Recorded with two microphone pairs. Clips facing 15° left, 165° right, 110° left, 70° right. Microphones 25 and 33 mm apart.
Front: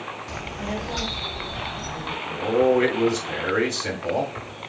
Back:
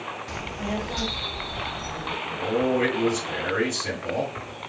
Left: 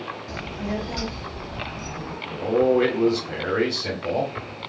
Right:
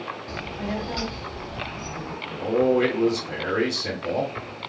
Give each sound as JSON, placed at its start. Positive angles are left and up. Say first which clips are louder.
{"t": 0.3, "sound": "a child speaking", "louder": "even, left 1 dB", "azimuth_deg": -90, "distance_m": 0.8}
{"t": 2.3, "sound": "a man speaking", "louder": "front 5 dB, left 1 dB", "azimuth_deg": 50, "distance_m": 1.5}